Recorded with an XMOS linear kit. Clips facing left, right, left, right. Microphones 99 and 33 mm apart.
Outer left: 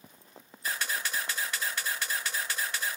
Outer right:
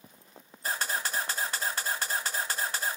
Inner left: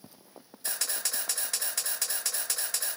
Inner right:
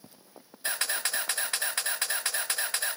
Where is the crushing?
No crushing in this recording.